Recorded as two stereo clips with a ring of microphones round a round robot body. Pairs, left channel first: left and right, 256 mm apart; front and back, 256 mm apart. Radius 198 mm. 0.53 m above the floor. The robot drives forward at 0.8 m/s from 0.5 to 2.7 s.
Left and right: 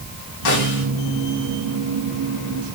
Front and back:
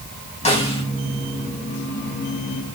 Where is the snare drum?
65° left, 4.5 m; by 0.8 s 70° left, 4 m.